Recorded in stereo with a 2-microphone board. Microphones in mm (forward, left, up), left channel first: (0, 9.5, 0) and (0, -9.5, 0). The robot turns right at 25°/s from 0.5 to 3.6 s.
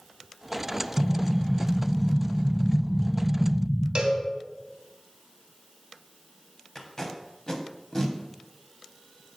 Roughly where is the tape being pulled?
Left.